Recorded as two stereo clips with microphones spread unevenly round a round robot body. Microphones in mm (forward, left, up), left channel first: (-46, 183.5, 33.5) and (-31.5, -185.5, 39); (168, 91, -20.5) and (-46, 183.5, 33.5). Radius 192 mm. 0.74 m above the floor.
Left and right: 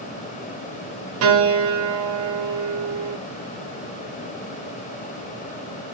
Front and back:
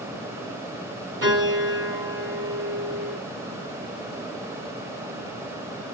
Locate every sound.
1.2 s a piano: 140° right, 0.7 m